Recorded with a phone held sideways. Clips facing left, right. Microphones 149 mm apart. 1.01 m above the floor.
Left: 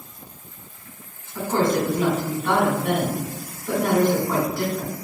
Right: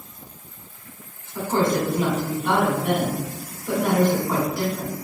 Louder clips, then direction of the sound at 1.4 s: Even; 5° right (ahead or behind).